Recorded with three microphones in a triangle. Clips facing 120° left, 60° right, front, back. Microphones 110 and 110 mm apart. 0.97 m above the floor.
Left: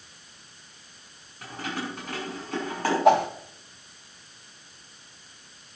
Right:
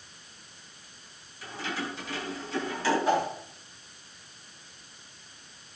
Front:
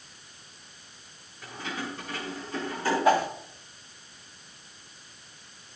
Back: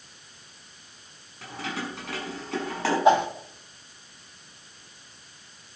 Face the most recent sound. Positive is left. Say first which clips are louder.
# left 10 dB, back 4 dB
turn(degrees=110)